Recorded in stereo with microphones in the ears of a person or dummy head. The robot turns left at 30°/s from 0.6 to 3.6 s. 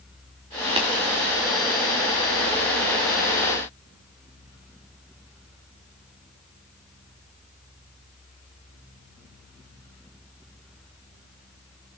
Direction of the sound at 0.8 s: 30° right (ahead or behind).